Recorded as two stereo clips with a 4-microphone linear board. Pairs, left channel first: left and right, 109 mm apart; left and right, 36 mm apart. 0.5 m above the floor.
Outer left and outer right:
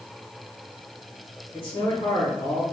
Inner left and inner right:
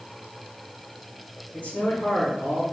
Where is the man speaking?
55° left (ahead or behind), 1.6 m.